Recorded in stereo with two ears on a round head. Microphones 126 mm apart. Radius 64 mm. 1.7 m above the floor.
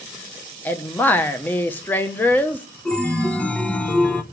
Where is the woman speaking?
15° left (ahead or behind), 1.1 m.